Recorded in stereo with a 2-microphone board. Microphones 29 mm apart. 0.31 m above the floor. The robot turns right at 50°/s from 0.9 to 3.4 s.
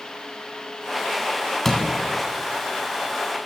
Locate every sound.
1.6 s a door slam: 10° left (ahead or behind), 1.7 m; by 1.9 s 20° left (ahead or behind), 1.7 m